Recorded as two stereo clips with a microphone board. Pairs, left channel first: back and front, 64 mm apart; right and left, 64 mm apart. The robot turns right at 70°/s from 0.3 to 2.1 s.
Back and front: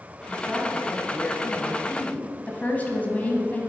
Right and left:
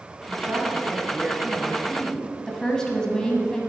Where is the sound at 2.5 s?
160° right, 1.0 m.